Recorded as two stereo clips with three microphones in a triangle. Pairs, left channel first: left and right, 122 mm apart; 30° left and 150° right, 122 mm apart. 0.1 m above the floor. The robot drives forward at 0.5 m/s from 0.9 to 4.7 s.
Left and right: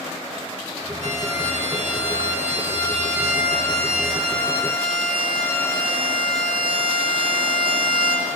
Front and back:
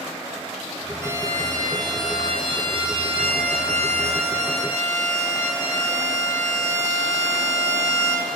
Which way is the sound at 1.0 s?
85° right.